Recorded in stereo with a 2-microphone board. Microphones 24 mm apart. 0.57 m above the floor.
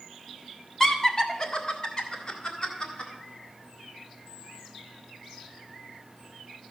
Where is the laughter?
20° left (ahead or behind), 1.1 m; by 3.1 s 35° left (ahead or behind), 3 m.